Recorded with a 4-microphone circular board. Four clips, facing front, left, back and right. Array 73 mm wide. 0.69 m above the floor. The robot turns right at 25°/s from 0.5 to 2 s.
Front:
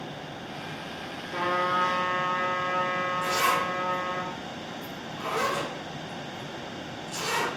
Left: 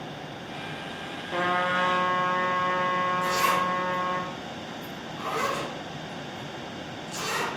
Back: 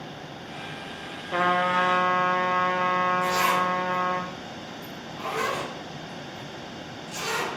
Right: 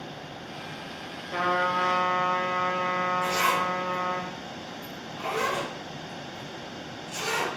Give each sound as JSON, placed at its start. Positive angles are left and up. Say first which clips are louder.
{"t": 1.3, "sound": "a trumpet", "louder": "even, back 4 dB", "azimuth_deg": 175, "distance_m": 0.7}
{"t": 3.2, "sound": "a zipper", "louder": "left 1 dB, back 2 dB", "azimuth_deg": -105, "distance_m": 2.0}